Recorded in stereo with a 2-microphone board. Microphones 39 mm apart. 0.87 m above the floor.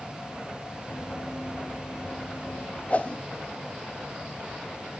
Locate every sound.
0.9 s running footsteps: 65° left (ahead or behind), 2 m
2.9 s a whoosh: 35° left (ahead or behind), 0.8 m